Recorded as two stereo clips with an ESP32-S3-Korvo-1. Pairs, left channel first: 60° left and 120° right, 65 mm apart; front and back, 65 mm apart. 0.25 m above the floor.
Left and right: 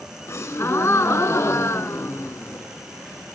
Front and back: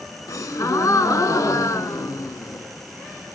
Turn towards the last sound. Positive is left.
turn(degrees=20)